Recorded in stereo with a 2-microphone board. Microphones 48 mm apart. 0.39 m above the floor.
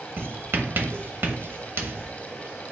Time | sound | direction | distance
0.2 | writing | 50° right (ahead or behind) | 0.9 m